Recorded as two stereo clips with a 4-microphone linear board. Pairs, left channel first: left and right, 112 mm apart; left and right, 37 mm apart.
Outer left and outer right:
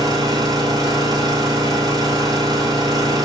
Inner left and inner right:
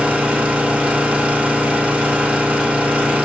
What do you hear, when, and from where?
0.0 s an engine running: 35° right (ahead or behind), 1.4 m